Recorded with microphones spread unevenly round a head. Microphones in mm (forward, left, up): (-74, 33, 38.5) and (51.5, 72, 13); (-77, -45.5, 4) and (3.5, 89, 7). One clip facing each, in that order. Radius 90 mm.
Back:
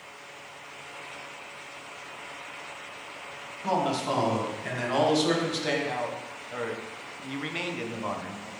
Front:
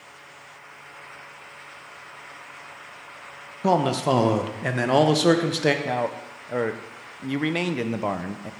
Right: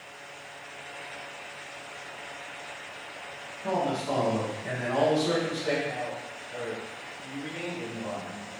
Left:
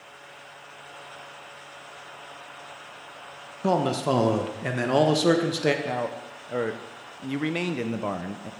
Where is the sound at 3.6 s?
40° left, 0.9 m.